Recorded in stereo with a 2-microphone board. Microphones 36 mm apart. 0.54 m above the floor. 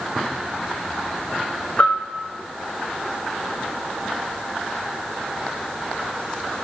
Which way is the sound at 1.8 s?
45° left (ahead or behind).